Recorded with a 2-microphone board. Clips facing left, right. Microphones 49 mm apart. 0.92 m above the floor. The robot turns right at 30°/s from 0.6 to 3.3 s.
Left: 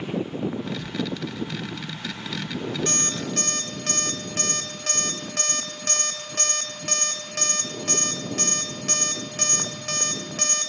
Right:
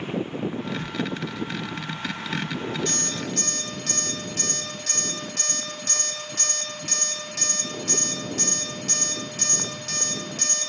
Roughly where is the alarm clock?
Left.